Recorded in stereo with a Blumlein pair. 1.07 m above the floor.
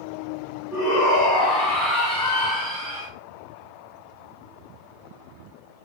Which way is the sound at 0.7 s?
10° left.